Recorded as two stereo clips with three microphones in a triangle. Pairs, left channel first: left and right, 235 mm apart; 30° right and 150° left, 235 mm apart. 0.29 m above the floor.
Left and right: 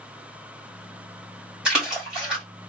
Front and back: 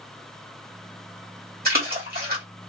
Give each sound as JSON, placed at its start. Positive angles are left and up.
{"t": 1.6, "sound": "a splash", "azimuth_deg": -175, "distance_m": 2.0}